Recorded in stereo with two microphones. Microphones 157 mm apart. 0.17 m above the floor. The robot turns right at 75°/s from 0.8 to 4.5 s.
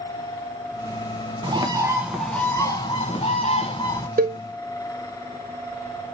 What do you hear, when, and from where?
1.4 s a bird: 60° right, 0.7 m; by 4.1 s 140° left, 0.7 m
4.2 s a cowbell: 65° right (ahead or behind), 0.5 m; by 4.4 s 70° right (ahead or behind), 0.5 m